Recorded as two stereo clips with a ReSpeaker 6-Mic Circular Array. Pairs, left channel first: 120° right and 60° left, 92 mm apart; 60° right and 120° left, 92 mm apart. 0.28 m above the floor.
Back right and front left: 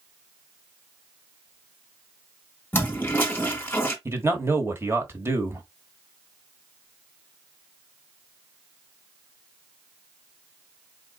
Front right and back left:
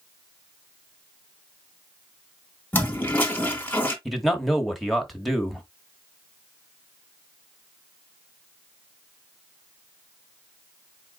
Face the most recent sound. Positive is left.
turn(degrees=30)